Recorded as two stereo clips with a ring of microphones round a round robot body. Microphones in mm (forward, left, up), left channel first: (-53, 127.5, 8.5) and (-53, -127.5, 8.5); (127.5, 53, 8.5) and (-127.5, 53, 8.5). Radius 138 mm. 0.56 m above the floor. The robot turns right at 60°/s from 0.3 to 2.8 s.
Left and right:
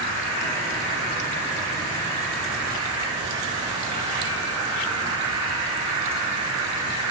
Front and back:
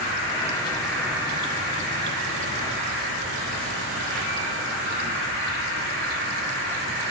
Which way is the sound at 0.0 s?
45° left.